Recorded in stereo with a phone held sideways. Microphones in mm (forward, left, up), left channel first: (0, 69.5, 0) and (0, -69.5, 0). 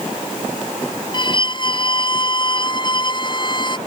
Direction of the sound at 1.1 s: 35° left (ahead or behind).